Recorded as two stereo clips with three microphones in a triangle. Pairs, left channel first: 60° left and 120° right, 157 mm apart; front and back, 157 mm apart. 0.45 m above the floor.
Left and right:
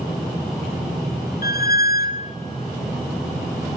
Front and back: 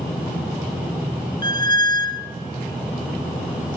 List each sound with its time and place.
1.4 s a squeak: 65° left, 0.7 m